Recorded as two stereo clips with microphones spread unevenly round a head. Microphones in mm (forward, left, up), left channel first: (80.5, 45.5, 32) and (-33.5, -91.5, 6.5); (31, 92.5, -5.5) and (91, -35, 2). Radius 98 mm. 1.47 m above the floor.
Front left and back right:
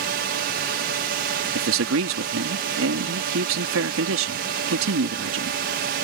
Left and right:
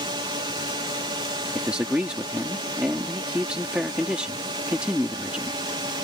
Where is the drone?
125° right.